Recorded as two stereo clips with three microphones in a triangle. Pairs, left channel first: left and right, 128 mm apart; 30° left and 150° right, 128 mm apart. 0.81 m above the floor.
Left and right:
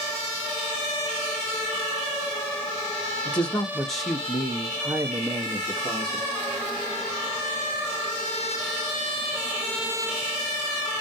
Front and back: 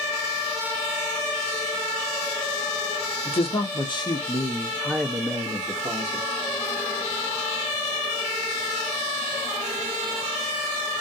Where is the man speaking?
15° left, 1.2 m; by 6.3 s 115° right, 1.2 m.